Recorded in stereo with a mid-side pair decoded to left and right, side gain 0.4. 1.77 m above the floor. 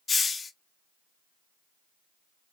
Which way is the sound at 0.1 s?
35° left.